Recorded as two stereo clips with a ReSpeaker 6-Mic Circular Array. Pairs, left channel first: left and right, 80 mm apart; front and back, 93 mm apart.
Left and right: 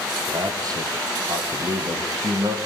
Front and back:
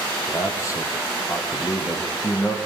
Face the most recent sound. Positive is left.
turn(degrees=-55)